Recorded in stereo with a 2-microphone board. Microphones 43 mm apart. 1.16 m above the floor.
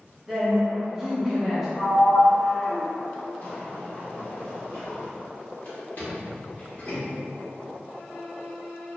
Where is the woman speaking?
10° right (ahead or behind), 0.7 m.